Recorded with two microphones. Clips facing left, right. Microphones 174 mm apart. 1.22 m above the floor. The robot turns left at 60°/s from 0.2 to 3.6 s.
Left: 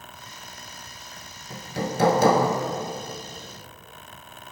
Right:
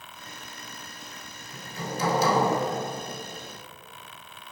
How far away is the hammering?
About 1.5 m.